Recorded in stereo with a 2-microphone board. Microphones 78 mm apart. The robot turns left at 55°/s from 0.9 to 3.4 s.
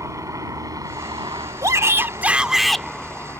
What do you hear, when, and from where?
0.0 s a helicopter: 45° right (ahead or behind); by 3.4 s 35° left (ahead or behind)
1.6 s a shout: 120° right; by 2.9 s 170° left